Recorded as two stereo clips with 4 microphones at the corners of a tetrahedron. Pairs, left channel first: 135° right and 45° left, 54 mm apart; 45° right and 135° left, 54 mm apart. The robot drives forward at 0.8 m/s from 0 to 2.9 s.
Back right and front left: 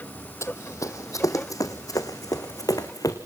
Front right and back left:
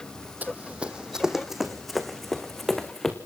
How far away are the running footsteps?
About 1.1 m.